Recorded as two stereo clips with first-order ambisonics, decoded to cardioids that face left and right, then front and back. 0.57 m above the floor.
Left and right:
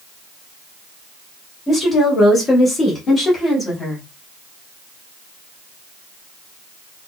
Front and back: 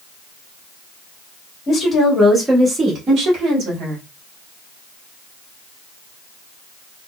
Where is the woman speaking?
35° left, 1.3 m; by 4.0 s 160° left, 1.7 m.